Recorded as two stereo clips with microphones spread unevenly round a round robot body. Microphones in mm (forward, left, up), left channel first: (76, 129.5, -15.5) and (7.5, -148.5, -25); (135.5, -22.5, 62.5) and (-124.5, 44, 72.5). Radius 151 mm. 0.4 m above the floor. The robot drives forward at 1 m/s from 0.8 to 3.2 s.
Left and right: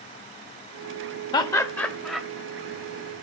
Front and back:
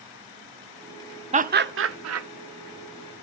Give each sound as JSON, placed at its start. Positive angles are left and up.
{"t": 1.3, "sound": "laughter", "azimuth_deg": 135, "distance_m": 0.9}